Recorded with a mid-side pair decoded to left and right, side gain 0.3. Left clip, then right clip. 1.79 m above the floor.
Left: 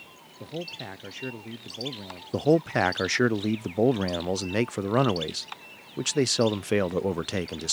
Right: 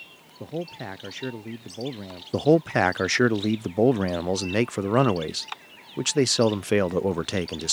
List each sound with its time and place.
0.4 s a man speaking: 50° right
2.3 s a man speaking: 35° right